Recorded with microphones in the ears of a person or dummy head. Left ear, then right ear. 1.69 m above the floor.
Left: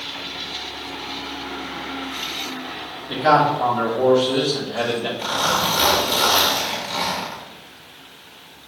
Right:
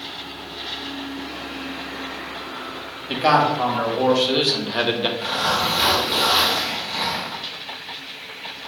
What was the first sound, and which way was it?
A man speaking, 55° right (ahead or behind).